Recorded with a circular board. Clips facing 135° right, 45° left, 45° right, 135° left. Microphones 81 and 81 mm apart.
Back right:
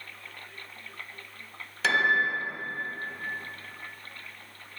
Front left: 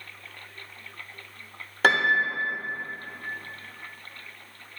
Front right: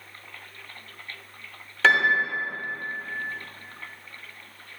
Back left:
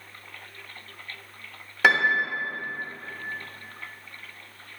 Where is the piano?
60° left, 1.0 m.